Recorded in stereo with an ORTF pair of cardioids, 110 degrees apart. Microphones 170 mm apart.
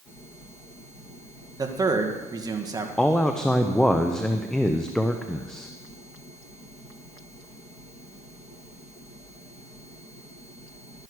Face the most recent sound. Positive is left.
turn(degrees=5)